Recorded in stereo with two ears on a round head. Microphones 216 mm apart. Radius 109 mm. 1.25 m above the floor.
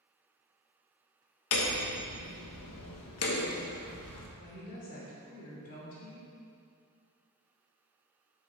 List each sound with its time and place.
1.5 s hammering: 70° left (ahead or behind), 1.4 m
4.4 s a woman speaking: 35° left (ahead or behind), 3 m